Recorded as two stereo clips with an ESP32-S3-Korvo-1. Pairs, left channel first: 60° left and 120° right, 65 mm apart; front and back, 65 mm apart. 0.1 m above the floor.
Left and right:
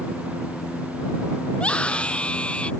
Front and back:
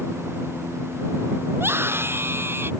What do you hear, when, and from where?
1.5 s a scream: 130° left